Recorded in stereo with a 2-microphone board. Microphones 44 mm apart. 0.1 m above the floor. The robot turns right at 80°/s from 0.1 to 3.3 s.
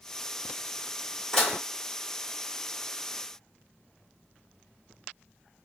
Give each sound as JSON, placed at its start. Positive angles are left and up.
{"t": 1.3, "sound": "dishes clattering", "side_deg": 10, "distance_m": 1.5}